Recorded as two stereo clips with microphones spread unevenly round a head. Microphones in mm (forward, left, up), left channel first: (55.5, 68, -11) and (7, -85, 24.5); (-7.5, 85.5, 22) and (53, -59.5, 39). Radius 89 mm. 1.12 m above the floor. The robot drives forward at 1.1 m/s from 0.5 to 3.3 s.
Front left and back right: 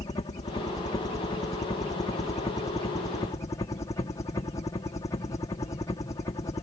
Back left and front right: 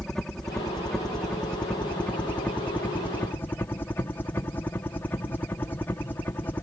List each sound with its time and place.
0.0 s a helicopter: 35° left; by 6.6 s 55° left